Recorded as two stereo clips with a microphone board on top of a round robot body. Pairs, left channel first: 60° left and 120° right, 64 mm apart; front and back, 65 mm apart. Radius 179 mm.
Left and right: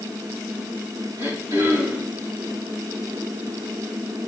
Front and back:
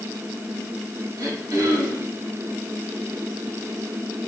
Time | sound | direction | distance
1.2 | throat clearing | 155° right | 5.5 m